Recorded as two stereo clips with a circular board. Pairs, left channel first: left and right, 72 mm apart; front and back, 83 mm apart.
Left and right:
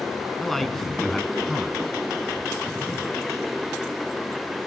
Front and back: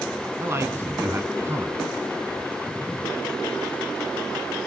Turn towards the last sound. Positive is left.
turn(degrees=175)